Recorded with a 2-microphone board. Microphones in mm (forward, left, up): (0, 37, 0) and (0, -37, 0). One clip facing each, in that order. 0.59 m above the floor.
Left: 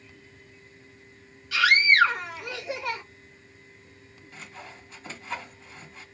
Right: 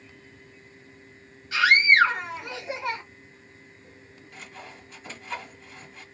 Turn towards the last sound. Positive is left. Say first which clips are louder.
# even
turn(degrees=0)  # may be behind; listen again after turning